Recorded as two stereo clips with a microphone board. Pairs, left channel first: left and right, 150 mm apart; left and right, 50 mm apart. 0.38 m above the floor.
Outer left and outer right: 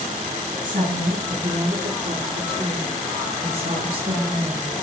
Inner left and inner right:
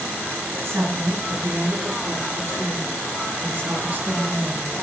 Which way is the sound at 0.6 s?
60° right (ahead or behind).